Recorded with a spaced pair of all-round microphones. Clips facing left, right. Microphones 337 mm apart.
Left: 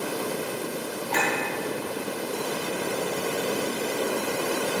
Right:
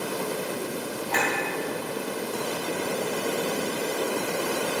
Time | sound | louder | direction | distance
1.1 | a clink | left 1 dB | 40° left (ahead or behind) | 2.5 m